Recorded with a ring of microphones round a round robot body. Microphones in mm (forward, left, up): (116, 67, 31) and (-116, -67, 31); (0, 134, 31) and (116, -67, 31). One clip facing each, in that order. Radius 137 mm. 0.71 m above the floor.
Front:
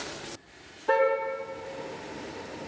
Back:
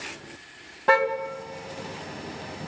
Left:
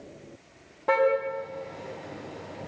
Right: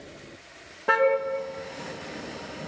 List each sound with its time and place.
0.9 s a car horn: 145° right, 3 m